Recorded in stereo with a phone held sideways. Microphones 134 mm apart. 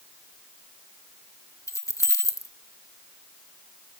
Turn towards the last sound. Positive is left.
turn(degrees=20)  # may be behind; listen again after turning